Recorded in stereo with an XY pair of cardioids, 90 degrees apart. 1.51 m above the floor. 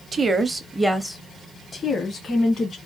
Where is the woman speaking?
40° right, 0.6 m; by 2.8 s 55° left, 1.1 m.